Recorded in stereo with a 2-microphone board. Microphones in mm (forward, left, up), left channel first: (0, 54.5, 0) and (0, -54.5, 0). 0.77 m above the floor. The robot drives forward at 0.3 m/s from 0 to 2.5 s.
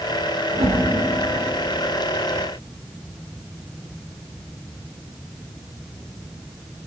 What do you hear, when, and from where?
0.5 s a whoosh: 70° right (ahead or behind), 2.0 m; by 0.8 s 65° right (ahead or behind), 2.0 m